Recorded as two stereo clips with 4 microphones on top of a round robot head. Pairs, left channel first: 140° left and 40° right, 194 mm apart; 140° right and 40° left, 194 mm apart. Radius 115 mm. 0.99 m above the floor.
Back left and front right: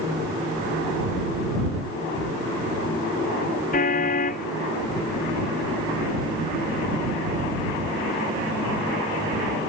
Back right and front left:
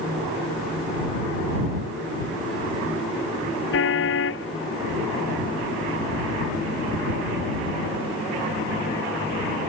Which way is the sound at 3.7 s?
170° right.